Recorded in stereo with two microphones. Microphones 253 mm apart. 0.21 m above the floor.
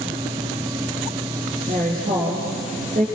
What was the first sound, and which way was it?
A woman speaking, 35° right (ahead or behind).